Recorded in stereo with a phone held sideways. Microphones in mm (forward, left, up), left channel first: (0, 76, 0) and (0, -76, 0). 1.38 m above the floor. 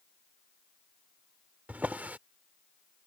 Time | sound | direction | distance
1.7 | a drawer | 10° right (ahead or behind) | ?